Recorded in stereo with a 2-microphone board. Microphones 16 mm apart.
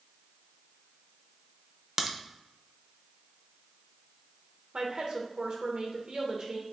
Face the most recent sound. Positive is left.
turn(degrees=-50)  # may be behind; listen again after turning